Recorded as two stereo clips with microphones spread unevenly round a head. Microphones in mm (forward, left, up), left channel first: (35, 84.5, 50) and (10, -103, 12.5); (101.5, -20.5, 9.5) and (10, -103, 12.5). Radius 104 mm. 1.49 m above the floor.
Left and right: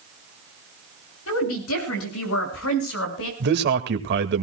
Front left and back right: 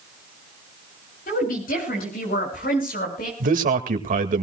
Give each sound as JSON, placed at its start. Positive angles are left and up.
{"t": 1.3, "sound": "a woman speaking", "azimuth_deg": 80, "distance_m": 7.5}
{"t": 3.4, "sound": "a man speaking", "azimuth_deg": -135, "distance_m": 2.0}